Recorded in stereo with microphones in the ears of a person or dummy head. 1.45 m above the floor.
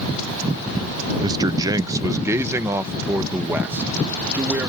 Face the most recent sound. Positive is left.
turn(degrees=-10)  # may be behind; listen again after turning